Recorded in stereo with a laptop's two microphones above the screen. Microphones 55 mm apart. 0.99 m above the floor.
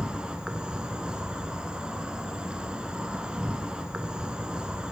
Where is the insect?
20° right (ahead or behind), 0.9 m.